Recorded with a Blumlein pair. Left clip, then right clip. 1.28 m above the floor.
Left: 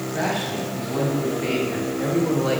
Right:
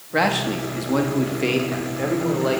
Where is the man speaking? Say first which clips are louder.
Right 6 dB; 55° right, 1.4 m; by 2.6 s 5° right, 2.0 m.